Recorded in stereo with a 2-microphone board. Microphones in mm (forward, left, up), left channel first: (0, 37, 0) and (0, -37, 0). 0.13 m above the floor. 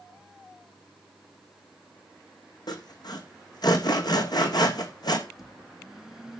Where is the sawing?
65° left (ahead or behind), 2 m.